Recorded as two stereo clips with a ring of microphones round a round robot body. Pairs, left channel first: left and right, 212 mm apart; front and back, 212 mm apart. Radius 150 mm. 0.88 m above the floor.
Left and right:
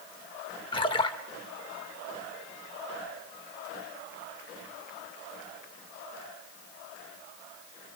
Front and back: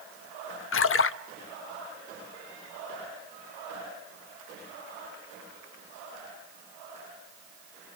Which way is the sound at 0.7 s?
15° left.